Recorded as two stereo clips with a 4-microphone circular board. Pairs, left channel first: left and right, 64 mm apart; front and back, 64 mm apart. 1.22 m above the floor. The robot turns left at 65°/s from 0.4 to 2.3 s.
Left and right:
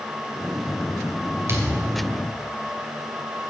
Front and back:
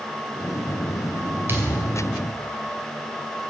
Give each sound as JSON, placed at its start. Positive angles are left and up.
{"t": 1.5, "sound": "a thud", "azimuth_deg": -130, "distance_m": 2.5}